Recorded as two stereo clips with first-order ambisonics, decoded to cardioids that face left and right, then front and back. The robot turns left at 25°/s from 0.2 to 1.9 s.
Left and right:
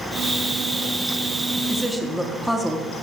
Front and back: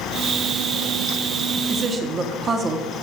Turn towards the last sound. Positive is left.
turn(degrees=-175)